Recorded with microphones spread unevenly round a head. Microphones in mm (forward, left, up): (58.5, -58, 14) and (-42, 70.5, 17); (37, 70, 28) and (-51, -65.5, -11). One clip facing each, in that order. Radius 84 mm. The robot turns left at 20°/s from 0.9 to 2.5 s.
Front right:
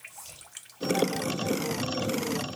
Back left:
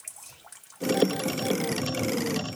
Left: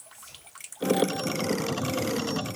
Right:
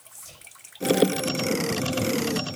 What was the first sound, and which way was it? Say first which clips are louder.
Whispering: front right 1 dB, right 2 dB; 100° right.